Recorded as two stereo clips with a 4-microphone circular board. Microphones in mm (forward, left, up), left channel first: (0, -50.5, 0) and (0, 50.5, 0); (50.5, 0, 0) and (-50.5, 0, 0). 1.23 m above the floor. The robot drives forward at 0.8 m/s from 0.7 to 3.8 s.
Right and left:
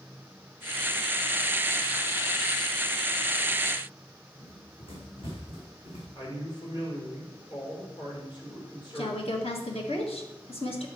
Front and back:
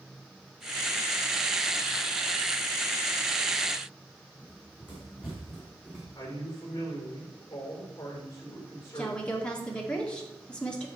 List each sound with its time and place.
4.4 s running footsteps: 60° right, 3.5 m; by 6.0 s 100° right, 3.5 m
6.2 s a man speaking: 60° right, 4.5 m
8.9 s a woman speaking: 80° right, 1.9 m